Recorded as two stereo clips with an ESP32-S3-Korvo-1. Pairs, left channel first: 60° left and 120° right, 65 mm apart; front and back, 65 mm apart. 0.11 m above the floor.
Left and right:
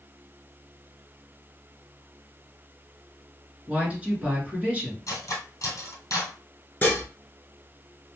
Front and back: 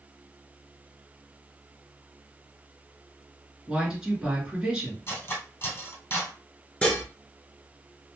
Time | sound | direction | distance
3.7 | a woman speaking | 125° right | 1.5 m
5.1 | cutlery clinking | 40° left | 1.5 m
6.8 | dishes clattering | 45° left | 0.9 m